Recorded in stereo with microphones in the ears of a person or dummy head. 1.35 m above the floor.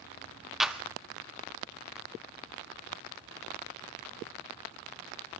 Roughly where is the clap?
Centre.